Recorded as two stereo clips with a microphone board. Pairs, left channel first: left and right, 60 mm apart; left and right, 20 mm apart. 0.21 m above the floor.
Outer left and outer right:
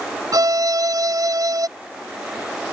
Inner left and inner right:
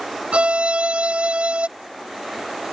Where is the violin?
75° right (ahead or behind).